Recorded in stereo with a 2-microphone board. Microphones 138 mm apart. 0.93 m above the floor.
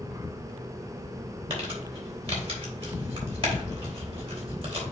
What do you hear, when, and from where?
1.5 s crumpling: 45° right (ahead or behind), 2.5 m